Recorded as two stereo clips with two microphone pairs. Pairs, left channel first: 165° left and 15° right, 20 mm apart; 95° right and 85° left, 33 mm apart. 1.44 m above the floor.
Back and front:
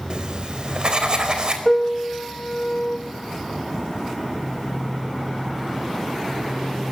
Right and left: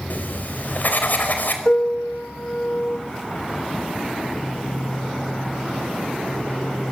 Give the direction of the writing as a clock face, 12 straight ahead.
2 o'clock.